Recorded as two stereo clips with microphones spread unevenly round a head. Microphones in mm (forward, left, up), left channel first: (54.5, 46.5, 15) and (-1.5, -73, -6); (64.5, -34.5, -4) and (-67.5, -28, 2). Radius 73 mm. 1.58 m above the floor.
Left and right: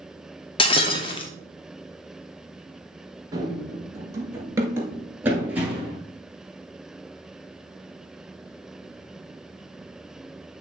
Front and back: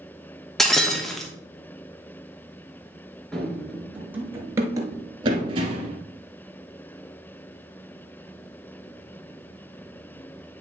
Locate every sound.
0.6 s breaking glass: 85° left, 0.9 m
3.3 s running footsteps: 80° right, 1.6 m; by 6.0 s 160° left, 2 m